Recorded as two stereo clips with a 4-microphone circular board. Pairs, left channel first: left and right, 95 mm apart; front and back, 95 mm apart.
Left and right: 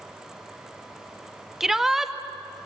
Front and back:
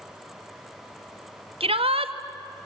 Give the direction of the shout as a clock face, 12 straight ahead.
6 o'clock.